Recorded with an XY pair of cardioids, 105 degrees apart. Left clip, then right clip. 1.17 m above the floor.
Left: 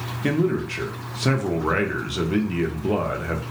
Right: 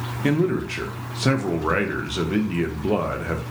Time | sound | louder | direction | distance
0.2 | a man speaking | right 1 dB | 5° right | 0.6 m